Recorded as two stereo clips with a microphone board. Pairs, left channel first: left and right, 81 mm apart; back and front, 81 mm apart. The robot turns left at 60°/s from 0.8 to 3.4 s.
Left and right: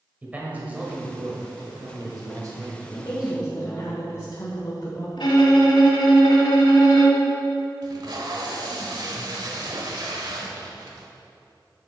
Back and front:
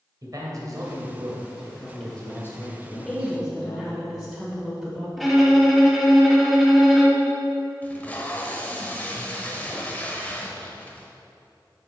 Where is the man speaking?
25° right, 1.4 m; by 3.9 s straight behind, 1.4 m.